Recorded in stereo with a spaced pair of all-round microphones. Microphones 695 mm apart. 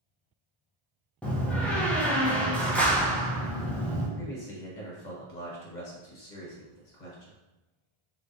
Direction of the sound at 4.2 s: 75° left (ahead or behind).